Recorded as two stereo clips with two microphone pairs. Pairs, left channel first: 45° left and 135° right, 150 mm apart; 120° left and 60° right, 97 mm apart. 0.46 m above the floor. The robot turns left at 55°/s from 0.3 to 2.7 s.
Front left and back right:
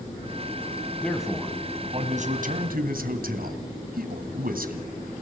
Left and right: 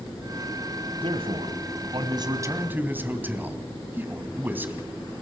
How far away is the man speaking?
About 3 m.